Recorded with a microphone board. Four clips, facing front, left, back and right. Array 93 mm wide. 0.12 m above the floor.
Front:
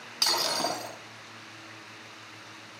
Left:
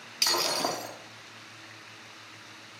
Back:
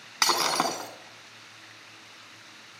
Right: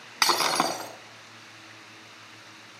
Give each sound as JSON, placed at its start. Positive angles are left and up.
{"t": 0.2, "sound": "breaking glass", "azimuth_deg": -120, "distance_m": 3.0}